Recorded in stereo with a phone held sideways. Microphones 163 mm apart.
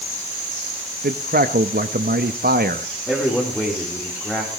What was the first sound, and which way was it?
A man speaking, 70° right (ahead or behind).